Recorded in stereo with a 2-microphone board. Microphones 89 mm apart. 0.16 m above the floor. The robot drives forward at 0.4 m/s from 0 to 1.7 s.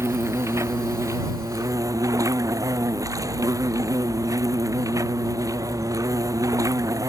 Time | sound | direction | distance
0.0 | an insect | 30° right (ahead or behind) | ?